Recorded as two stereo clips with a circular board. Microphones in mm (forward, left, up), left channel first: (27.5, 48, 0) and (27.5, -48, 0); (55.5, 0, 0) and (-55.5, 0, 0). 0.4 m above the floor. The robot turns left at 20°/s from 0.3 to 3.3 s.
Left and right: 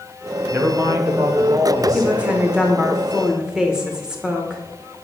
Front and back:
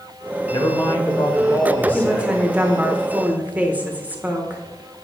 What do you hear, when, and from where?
0.5 s a man speaking: 40° right, 1.1 m; by 2.4 s 75° right, 1.1 m
1.9 s a woman speaking: 125° right, 0.7 m; by 4.6 s 150° right, 0.7 m